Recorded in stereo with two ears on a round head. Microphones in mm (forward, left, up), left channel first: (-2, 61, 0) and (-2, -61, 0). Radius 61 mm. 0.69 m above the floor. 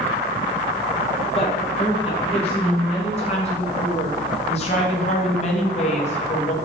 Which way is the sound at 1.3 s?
45° left (ahead or behind).